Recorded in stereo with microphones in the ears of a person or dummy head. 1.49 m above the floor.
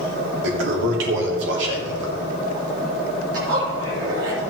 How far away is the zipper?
About 3.5 m.